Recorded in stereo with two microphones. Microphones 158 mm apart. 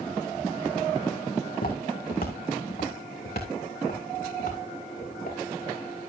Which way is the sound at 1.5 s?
65° left (ahead or behind).